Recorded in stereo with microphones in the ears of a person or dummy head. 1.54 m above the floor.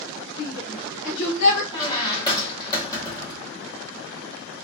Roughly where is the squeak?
Left.